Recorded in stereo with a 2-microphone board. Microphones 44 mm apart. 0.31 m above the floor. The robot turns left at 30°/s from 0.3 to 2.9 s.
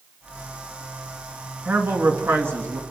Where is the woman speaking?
55° right, 3 m; by 2.8 s 90° right, 3 m.